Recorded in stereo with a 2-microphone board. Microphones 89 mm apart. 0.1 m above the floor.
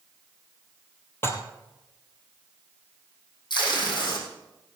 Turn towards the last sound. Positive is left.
turn(degrees=60)  # may be behind; listen again after turning